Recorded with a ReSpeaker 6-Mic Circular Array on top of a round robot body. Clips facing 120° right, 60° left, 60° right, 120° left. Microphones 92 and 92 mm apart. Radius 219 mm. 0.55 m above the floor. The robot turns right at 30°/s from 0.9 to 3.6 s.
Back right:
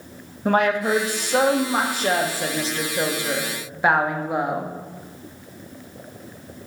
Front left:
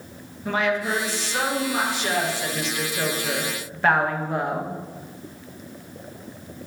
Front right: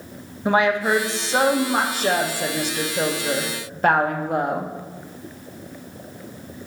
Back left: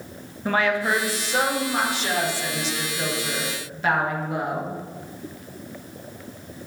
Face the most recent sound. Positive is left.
turn(degrees=-45)